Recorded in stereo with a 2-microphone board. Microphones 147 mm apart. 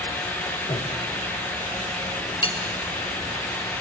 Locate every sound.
0.7 s breathing: 40° left (ahead or behind), 2.5 m
2.4 s cutlery clinking: 40° left (ahead or behind), 1.1 m